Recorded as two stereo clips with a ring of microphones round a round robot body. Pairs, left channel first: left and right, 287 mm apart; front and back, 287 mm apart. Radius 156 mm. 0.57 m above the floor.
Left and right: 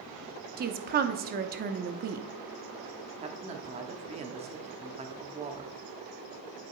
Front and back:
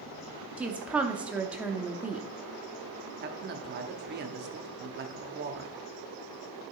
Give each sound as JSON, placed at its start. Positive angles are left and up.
{"t": 0.6, "sound": "a woman speaking", "azimuth_deg": -100, "distance_m": 0.6}
{"t": 3.2, "sound": "a man speaking", "azimuth_deg": -150, "distance_m": 0.8}